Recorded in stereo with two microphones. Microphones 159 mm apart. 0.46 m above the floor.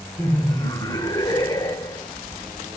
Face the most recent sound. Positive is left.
turn(degrees=25)  # may be behind; listen again after turning